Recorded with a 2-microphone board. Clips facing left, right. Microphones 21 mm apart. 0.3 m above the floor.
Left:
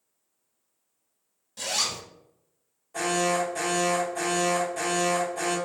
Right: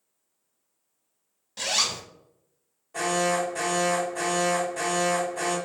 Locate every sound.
1.6 s a zipper: 30° right (ahead or behind), 0.7 m
2.9 s an alarm: 10° right (ahead or behind), 1.9 m